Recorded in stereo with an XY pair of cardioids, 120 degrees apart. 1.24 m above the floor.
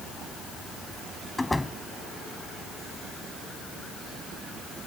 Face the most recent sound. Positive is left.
turn(degrees=10)